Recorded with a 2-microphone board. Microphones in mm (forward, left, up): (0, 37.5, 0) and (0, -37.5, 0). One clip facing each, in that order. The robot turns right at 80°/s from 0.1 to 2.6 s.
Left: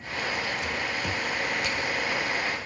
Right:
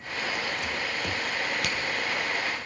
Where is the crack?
75° right (ahead or behind), 1.7 m; by 1.8 s 65° right (ahead or behind), 1.7 m.